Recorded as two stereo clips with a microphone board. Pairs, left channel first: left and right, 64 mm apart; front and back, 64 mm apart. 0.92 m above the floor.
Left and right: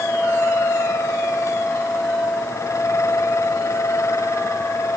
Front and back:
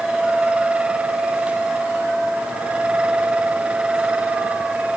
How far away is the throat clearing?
I don't hear throat clearing.